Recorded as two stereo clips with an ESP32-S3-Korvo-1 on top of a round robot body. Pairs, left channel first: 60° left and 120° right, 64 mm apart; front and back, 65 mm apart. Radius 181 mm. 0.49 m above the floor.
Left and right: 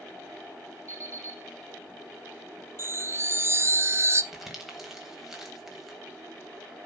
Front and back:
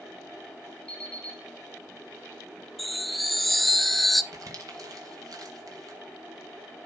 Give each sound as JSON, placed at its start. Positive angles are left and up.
{"t": 0.9, "sound": "an alarm clock", "azimuth_deg": -70, "distance_m": 7.0}
{"t": 2.8, "sound": "a chime", "azimuth_deg": -90, "distance_m": 1.0}
{"t": 4.3, "sound": "crumpling", "azimuth_deg": 155, "distance_m": 3.5}